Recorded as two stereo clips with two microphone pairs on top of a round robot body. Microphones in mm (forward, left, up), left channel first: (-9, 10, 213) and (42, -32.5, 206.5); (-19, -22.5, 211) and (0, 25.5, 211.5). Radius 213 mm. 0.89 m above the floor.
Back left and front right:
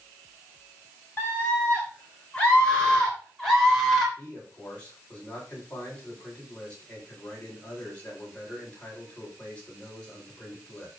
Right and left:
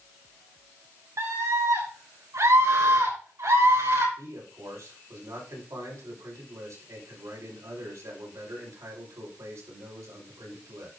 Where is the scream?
70° left, 5 m; by 4.1 s 55° left, 4 m.